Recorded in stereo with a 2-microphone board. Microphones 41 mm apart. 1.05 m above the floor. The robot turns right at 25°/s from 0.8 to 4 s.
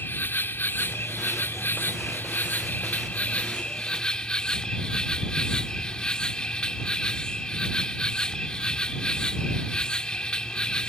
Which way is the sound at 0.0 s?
75° left.